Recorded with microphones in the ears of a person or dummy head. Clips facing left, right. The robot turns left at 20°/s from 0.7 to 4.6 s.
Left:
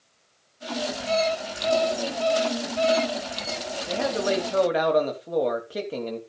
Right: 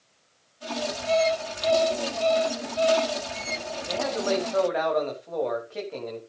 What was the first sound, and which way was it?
An alarm clock, 165° right.